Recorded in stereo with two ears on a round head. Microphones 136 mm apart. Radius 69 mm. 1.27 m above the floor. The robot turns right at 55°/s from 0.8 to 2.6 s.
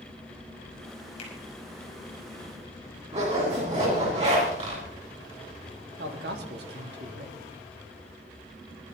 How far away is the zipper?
About 8 m.